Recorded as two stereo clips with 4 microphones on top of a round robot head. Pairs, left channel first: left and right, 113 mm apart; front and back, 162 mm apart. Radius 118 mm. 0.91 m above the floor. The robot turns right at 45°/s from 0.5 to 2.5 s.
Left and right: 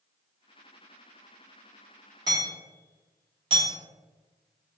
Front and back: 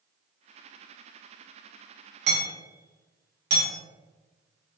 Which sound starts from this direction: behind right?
Hammering, at 2.3 s.